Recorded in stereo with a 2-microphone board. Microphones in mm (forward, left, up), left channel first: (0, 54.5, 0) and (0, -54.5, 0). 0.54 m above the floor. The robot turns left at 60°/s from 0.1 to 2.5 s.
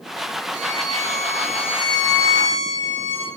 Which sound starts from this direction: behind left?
A violin, at 0.5 s.